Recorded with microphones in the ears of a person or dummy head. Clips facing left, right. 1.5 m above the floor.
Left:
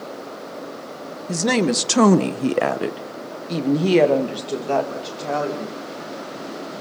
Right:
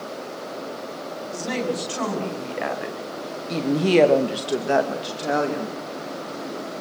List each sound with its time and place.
1.3 s a woman speaking: 75° left (ahead or behind), 2 m; by 5.8 s 25° right (ahead or behind), 3 m